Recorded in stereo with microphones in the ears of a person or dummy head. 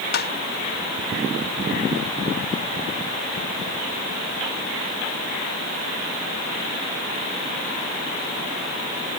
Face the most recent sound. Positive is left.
turn(degrees=45)  # may be behind; listen again after turning